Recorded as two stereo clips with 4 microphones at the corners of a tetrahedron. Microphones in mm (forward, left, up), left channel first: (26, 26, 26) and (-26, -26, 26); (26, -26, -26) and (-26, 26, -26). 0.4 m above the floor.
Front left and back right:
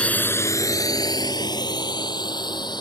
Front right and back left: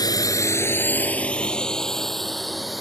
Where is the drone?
30° right; by 2.8 s 45° left.